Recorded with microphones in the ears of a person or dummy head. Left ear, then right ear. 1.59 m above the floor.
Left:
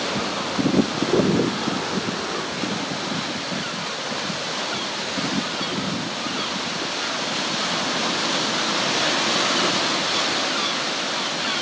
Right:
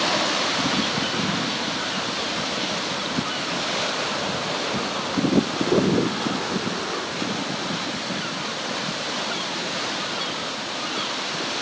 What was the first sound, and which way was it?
Only background noise.